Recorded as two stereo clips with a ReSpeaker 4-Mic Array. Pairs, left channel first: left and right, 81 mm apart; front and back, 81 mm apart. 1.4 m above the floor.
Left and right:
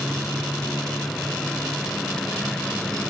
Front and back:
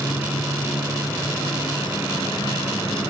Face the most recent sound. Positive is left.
turn(degrees=10)